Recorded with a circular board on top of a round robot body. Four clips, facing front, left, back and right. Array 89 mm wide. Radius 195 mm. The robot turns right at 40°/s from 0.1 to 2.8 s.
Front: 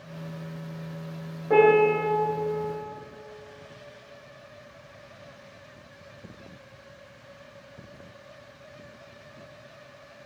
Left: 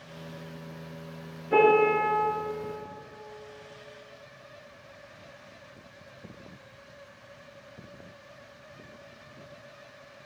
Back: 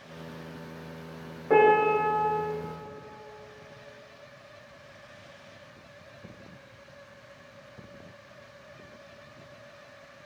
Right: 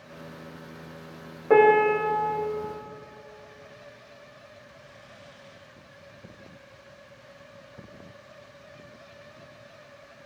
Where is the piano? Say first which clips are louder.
Right 3 dB, front 2 dB; 100° right, 1.4 m; by 2.4 s 65° right, 1.4 m.